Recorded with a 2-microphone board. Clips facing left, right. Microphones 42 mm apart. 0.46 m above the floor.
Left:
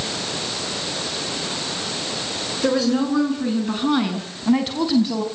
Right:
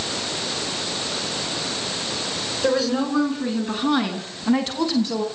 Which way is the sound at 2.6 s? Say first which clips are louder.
Left 2 dB; centre (ahead or behind).